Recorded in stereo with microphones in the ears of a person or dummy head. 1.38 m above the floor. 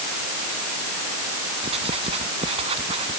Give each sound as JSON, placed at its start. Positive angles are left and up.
{"t": 1.6, "sound": "writing", "side_deg": -30}